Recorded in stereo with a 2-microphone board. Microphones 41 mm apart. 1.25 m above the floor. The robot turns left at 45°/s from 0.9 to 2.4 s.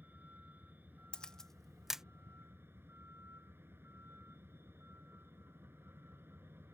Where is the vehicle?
45° right; by 6.7 s 115° right.